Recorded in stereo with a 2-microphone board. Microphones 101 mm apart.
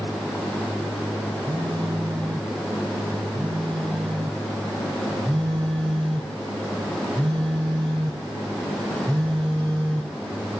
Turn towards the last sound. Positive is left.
turn(degrees=10)  # may be behind; listen again after turning